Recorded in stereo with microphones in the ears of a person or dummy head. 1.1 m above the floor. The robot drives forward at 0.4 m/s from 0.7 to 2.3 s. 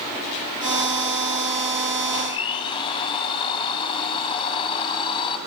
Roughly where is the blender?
Left.